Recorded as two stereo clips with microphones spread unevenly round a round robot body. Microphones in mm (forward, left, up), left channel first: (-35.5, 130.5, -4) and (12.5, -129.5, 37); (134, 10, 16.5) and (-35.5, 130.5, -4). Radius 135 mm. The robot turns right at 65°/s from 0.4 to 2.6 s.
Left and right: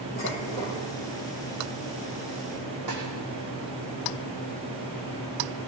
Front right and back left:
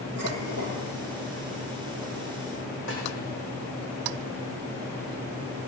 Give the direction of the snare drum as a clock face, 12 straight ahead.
2 o'clock.